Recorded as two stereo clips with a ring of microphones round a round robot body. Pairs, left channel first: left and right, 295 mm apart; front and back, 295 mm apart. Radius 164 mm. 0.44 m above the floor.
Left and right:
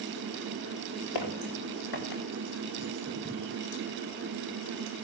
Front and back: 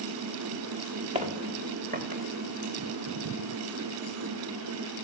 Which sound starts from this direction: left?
Footsteps, at 1.1 s.